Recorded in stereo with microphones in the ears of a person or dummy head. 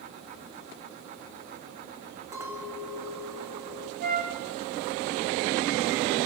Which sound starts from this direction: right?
A flute, at 4.0 s.